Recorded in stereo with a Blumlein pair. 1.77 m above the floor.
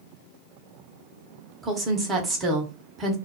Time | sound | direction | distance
1.6 | a woman speaking | 15° right | 1.1 m